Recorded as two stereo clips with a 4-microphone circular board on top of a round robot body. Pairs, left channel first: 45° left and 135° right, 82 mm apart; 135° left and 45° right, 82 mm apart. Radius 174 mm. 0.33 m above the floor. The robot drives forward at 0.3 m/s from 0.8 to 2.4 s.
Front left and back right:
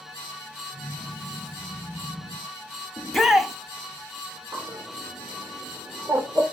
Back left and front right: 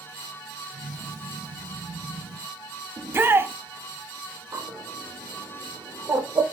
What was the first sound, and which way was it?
A shout, 45° right.